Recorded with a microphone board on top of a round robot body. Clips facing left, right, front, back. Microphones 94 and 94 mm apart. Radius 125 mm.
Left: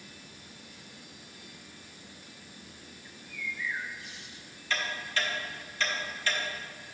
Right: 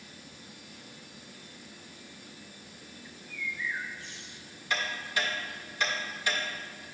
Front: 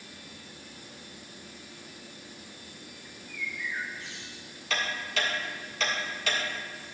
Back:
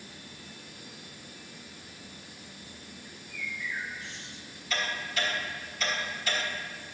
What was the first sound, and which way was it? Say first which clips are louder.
A bird: right 1 dB, front 1 dB; 5° left.